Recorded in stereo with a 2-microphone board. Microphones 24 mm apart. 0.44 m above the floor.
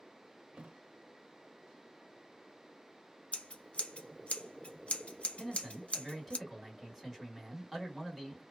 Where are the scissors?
70° left (ahead or behind), 0.6 m.